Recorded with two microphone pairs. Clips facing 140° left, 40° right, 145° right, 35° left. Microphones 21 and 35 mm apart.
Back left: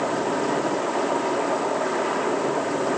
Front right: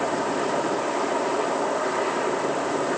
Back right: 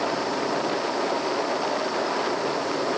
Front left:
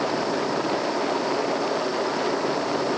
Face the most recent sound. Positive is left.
No sound to turn to.